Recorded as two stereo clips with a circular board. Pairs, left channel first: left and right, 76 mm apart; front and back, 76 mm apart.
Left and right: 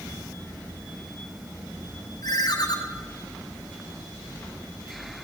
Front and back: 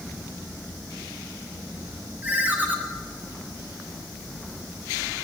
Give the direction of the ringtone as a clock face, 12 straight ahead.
8 o'clock.